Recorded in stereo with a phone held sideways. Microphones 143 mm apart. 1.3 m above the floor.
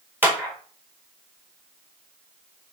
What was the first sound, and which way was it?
A clap, 15° right (ahead or behind).